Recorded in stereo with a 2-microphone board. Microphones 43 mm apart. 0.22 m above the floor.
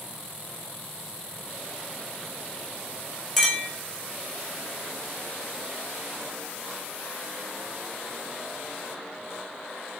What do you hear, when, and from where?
3.4 s a clink: centre (ahead or behind), 3 m